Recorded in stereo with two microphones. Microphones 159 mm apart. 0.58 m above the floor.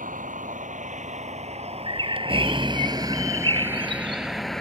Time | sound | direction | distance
0.0 | a vehicle | 55° right (ahead or behind) | ?
1.9 | a bird | 35° right (ahead or behind) | ?